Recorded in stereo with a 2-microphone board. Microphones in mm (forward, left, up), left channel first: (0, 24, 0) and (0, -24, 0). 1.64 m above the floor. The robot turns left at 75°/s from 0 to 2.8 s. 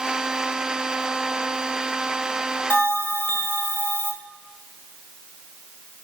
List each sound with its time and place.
2.7 s a bell: 40° left (ahead or behind), 1.8 m